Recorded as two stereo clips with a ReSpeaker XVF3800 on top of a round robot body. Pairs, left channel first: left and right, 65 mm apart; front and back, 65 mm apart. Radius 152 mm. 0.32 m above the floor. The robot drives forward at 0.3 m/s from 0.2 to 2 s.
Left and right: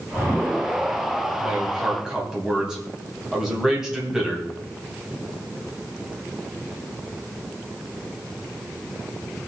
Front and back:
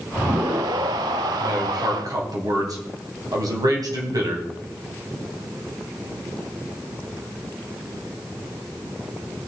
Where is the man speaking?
170° right, 3 m.